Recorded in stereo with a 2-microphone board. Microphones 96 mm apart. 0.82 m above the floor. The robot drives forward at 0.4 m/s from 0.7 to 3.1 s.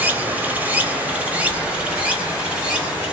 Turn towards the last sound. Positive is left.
turn(degrees=-10)  # may be behind; listen again after turning